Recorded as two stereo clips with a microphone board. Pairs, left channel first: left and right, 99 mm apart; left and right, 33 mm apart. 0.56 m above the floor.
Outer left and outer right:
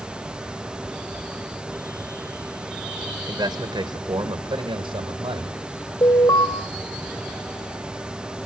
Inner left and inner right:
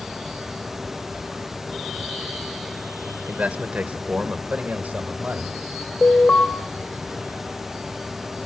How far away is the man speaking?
About 2 m.